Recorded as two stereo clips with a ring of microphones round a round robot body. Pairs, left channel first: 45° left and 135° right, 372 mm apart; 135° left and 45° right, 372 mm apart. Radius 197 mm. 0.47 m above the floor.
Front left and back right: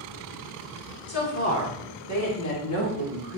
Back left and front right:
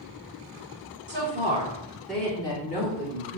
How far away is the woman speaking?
About 1.8 m.